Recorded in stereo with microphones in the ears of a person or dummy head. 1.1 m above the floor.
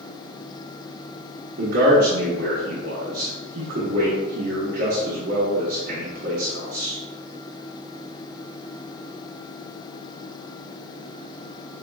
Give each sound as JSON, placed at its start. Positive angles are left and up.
{"t": 1.6, "sound": "a man speaking", "side_deg": -60, "distance_m": 1.1}